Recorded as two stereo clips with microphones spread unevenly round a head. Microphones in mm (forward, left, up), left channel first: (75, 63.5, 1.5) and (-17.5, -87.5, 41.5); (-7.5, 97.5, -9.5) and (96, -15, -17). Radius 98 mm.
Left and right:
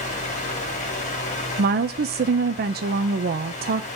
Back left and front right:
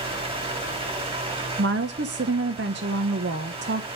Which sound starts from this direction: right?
A woman speaking, at 1.6 s.